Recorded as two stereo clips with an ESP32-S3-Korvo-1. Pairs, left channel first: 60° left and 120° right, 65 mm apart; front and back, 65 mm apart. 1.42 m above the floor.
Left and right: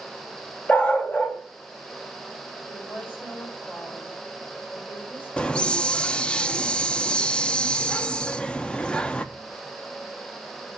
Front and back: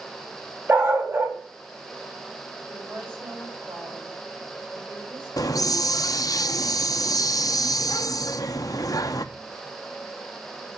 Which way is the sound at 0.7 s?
125° left.